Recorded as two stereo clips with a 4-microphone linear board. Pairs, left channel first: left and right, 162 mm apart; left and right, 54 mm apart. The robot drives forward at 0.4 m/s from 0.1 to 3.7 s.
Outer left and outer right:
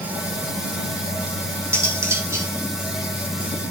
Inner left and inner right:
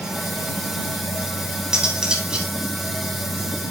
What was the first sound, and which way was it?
Cutlery clinking, 15° right (ahead or behind).